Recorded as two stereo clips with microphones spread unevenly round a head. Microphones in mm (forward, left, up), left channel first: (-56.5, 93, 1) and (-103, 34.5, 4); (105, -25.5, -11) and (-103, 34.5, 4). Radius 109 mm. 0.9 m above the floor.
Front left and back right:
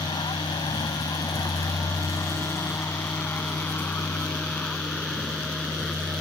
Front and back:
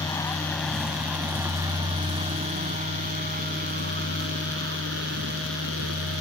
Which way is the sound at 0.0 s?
60° left.